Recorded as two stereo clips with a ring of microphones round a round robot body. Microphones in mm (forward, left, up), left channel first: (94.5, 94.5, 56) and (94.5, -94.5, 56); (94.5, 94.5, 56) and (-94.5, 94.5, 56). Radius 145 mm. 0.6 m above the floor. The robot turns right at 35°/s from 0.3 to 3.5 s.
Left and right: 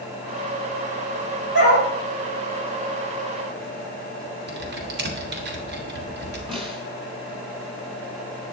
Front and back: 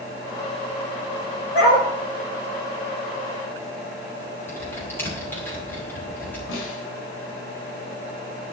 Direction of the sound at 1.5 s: 115° right.